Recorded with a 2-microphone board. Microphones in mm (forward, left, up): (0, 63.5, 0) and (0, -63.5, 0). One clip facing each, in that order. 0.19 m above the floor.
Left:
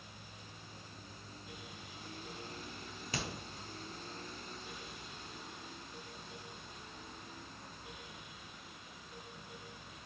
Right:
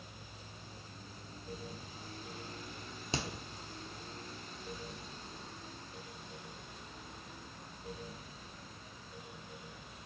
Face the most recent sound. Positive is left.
turn(degrees=-25)  # may be behind; listen again after turning